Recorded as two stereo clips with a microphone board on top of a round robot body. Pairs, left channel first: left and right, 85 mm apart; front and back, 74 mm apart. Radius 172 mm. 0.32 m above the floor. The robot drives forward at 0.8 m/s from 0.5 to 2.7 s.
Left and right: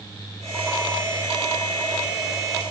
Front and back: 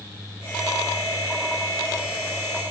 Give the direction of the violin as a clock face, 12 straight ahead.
No violin in this recording.